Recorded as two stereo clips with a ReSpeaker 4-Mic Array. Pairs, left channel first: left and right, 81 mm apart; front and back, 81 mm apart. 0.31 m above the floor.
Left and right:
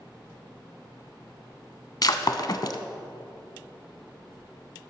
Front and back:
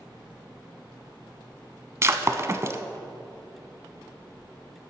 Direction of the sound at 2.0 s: 125° left.